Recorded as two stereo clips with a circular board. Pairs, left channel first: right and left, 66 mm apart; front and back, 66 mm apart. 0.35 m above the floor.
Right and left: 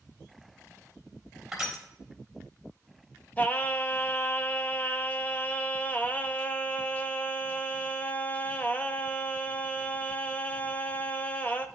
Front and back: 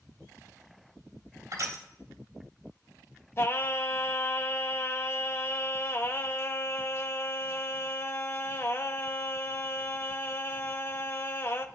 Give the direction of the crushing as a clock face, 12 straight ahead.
6 o'clock.